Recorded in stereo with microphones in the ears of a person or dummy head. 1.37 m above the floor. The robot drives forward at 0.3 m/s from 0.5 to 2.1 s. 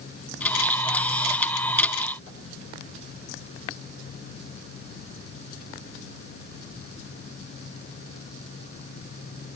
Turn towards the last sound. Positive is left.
No sound to turn to.